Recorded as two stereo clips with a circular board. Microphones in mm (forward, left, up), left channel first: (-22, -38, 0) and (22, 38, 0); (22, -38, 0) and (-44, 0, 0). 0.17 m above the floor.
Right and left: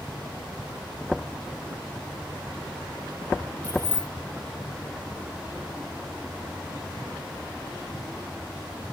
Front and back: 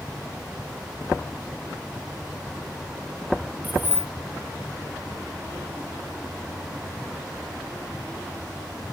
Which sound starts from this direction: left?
Keys jangling, at 3.6 s.